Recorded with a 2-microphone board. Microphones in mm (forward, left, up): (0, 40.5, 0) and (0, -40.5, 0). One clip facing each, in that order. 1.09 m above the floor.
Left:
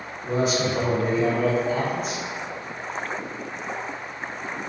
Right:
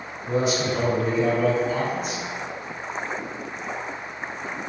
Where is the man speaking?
5° left (ahead or behind), 1.5 m.